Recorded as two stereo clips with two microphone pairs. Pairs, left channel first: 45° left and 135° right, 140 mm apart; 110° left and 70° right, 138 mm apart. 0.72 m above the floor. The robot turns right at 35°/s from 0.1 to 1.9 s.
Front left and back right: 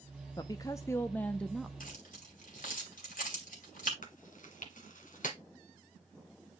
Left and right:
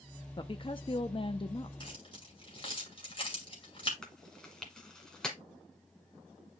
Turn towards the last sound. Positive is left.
turn(degrees=25)